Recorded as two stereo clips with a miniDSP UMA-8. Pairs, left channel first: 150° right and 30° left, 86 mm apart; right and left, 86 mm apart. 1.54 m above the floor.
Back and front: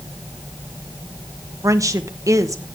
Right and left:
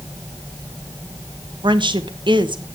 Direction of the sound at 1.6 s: 80° left.